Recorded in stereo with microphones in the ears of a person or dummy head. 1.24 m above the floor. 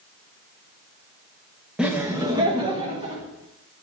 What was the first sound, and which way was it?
Laughter, 5° right (ahead or behind).